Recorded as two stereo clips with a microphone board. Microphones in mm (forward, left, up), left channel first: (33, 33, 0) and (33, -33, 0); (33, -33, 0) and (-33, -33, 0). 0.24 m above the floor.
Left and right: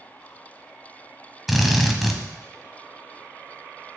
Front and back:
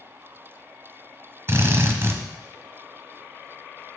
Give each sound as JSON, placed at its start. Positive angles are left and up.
{"t": 1.5, "sound": "a drill", "azimuth_deg": -175, "distance_m": 1.0}